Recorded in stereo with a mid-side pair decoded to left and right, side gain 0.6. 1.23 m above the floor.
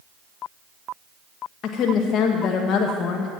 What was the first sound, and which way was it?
A woman speaking, 55° left.